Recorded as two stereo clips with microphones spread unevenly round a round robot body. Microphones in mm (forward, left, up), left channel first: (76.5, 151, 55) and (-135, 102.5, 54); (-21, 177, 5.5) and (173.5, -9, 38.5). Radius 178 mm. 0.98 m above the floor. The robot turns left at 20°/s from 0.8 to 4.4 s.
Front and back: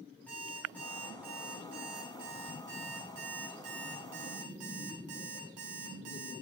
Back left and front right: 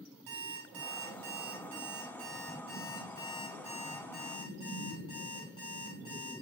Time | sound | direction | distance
0.3 | an alarm clock | 75° right | 6 m